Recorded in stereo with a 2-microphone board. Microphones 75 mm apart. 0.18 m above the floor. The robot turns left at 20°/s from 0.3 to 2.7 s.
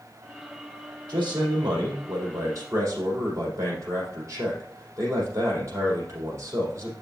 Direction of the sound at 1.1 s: 110° right.